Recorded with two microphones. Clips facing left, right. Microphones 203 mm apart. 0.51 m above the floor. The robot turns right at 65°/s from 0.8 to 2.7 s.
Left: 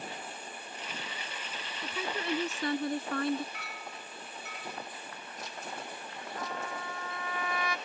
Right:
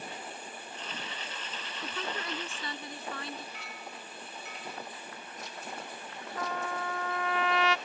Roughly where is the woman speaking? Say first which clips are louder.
Left 3 dB; ahead.